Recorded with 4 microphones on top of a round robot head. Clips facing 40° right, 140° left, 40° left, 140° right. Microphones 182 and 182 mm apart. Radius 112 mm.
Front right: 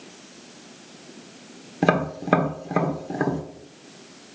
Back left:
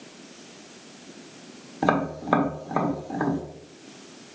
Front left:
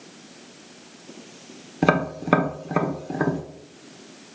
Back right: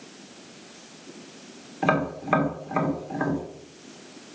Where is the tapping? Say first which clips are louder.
Front right 2 dB, front left 3 dB; 20° left, 1.5 m.